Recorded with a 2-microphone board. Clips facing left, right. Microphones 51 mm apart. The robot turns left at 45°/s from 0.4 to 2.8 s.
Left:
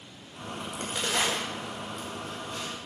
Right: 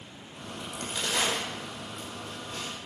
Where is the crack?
40° left (ahead or behind), 5.5 m; by 2.8 s 55° right (ahead or behind), 5.5 m.